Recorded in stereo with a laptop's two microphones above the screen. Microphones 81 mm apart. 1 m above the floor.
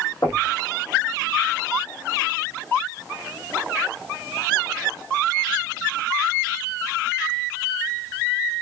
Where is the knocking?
40° left (ahead or behind), 1.4 m.